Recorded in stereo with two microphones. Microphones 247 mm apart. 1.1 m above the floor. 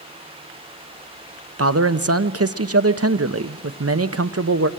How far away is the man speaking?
About 0.7 m.